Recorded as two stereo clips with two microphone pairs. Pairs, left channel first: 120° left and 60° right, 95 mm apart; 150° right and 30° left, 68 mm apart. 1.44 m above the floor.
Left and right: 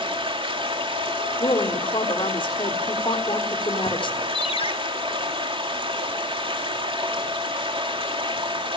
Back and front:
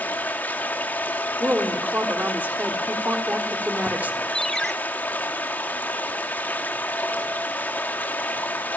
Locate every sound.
0.0 s running water: 85° right, 3 m
1.4 s a woman speaking: 95° left, 3.5 m
4.3 s a ringtone: 125° left, 2.5 m